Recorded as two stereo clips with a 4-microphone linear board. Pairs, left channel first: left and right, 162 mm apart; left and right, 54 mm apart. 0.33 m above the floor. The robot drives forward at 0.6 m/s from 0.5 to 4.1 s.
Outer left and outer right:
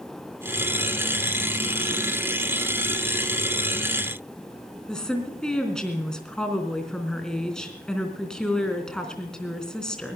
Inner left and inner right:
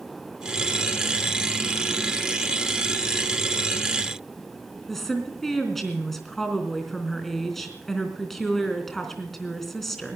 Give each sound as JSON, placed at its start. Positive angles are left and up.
{"t": 4.9, "sound": "a woman speaking", "side_deg": 5, "distance_m": 3.5}